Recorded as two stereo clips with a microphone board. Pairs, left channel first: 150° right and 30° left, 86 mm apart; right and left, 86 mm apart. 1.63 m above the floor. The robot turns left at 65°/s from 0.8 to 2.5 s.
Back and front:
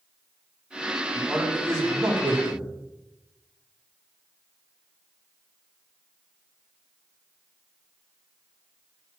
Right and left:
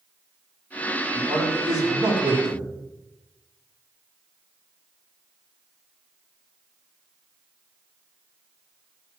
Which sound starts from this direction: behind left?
A man speaking, at 1.1 s.